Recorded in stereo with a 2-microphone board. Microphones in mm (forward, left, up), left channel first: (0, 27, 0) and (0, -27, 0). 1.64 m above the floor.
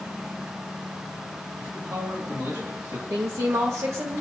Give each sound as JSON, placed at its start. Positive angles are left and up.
{"t": 1.6, "sound": "a man speaking", "side_deg": -85, "distance_m": 8.5}
{"t": 3.1, "sound": "a woman speaking", "side_deg": -75, "distance_m": 1.8}